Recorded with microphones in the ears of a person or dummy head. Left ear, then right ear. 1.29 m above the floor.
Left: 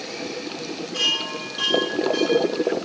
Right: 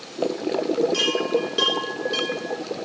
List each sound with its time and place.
0.9 s a chime: 40° right (ahead or behind), 6.5 m